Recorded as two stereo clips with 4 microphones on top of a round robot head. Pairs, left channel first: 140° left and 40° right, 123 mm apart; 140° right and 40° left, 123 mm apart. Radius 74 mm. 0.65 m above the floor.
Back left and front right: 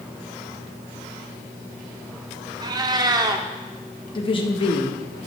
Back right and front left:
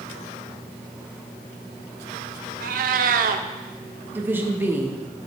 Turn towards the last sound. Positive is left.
turn(degrees=110)